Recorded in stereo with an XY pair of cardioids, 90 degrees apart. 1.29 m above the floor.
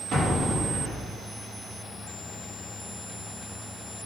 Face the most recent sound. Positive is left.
turn(degrees=-70)